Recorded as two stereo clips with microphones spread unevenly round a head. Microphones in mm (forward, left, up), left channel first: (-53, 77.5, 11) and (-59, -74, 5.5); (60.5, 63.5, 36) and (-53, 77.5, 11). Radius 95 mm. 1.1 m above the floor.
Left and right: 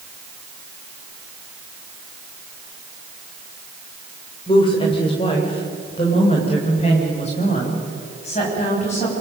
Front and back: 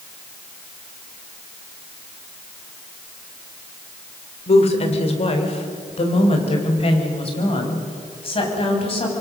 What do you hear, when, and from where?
4.5 s a woman speaking: 20° left, 3.5 m; by 9.2 s 30° left, 7.5 m